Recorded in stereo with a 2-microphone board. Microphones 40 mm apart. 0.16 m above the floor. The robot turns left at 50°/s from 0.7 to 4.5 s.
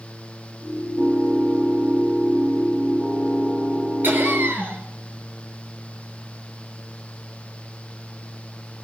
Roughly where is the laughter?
Right.